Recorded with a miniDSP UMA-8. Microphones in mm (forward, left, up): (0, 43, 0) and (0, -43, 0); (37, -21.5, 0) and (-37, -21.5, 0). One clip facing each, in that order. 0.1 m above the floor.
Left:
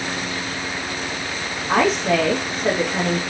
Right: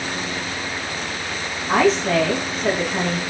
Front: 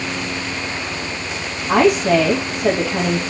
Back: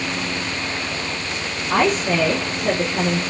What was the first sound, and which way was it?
A woman speaking, straight ahead.